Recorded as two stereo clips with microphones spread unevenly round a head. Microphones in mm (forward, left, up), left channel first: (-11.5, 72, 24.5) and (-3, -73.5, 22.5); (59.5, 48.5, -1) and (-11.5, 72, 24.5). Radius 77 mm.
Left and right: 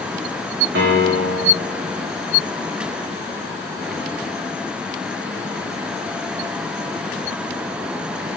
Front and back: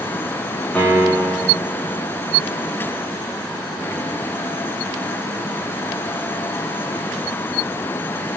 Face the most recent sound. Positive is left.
turn(degrees=-105)